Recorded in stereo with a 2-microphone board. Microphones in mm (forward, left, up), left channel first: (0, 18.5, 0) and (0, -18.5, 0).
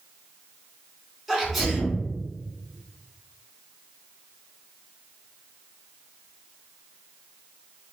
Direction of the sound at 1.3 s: 5° right (ahead or behind).